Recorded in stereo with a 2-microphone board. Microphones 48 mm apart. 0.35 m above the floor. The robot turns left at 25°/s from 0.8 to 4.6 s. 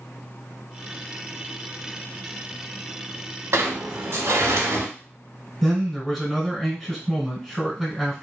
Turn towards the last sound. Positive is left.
turn(degrees=5)  # may be behind; listen again after turning